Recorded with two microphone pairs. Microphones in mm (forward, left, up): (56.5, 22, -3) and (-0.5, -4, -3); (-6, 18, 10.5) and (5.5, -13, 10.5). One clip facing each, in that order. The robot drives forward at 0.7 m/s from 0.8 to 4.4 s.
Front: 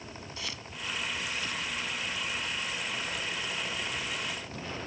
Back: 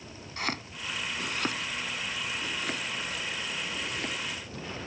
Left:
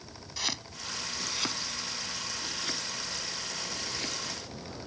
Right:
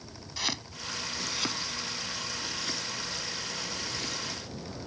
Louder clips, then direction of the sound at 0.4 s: Back 8 dB, right 1 dB; 150° right.